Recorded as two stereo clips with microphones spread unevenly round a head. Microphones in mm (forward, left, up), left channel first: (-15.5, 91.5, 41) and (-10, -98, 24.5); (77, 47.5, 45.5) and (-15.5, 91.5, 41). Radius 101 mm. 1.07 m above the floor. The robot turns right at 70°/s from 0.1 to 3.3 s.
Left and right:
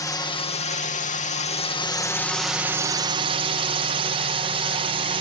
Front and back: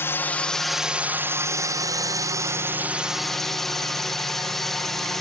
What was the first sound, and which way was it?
A drone, 25° left.